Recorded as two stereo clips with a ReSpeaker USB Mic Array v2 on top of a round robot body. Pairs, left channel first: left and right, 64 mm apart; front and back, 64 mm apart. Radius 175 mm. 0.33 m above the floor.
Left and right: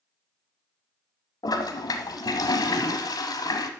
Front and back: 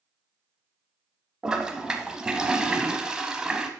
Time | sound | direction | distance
1.4 | a toilet flushing | 100° left | 0.7 m